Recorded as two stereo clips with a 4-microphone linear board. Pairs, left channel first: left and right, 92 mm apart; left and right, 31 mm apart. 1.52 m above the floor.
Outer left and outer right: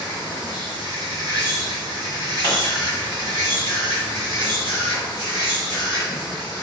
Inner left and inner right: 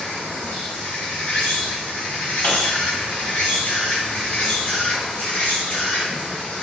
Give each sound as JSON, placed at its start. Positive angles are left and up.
{"t": 0.0, "sound": "an insect", "side_deg": 70, "distance_m": 1.8}
{"t": 2.4, "sound": "a pop", "side_deg": 60, "distance_m": 1.9}